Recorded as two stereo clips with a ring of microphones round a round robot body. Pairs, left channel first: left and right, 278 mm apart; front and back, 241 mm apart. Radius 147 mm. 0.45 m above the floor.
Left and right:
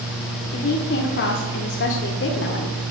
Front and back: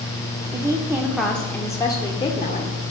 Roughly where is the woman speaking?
Behind left.